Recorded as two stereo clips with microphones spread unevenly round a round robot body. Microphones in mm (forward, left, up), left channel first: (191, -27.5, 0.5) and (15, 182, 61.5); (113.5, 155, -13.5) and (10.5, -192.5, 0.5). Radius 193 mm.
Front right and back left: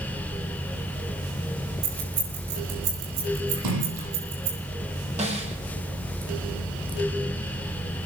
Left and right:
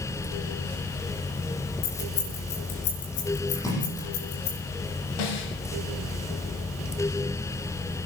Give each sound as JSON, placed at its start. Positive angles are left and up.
{"t": 1.8, "sound": "keys jangling", "azimuth_deg": 115, "distance_m": 7.0}
{"t": 3.5, "sound": "a splash", "azimuth_deg": 155, "distance_m": 8.5}
{"t": 5.2, "sound": "a snare drum", "azimuth_deg": 60, "distance_m": 6.5}